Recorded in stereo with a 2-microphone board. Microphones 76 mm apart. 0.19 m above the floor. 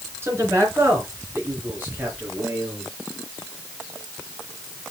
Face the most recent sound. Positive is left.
turn(degrees=-25)  # may be behind; listen again after turning